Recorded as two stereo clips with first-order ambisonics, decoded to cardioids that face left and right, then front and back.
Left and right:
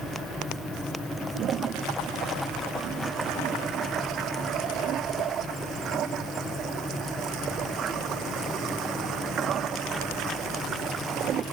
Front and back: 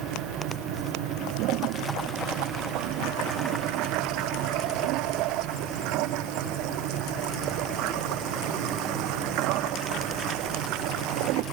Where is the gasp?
No gasp in this recording.